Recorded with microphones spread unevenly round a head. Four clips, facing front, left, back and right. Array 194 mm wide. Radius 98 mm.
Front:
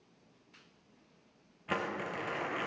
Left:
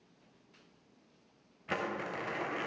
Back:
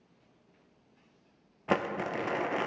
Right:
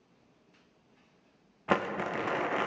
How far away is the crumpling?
About 0.6 m.